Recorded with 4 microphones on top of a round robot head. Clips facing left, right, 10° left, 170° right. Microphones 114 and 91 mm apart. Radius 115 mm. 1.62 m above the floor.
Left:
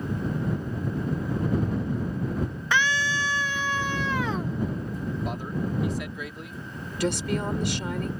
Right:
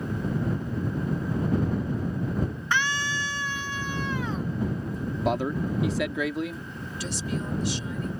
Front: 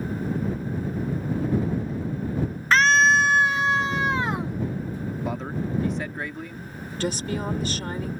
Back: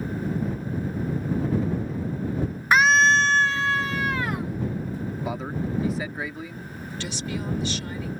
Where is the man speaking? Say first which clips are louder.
Right 9 dB, even; 80° right.